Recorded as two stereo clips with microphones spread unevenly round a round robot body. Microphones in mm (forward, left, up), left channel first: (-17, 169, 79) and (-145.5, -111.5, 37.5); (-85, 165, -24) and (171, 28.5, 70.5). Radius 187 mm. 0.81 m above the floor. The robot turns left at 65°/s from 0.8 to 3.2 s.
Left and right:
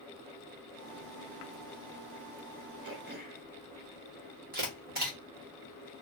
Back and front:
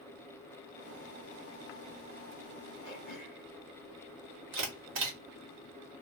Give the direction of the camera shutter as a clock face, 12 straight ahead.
2 o'clock.